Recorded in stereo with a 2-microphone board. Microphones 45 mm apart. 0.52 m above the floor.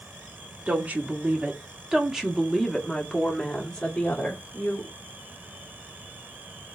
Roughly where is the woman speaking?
Right.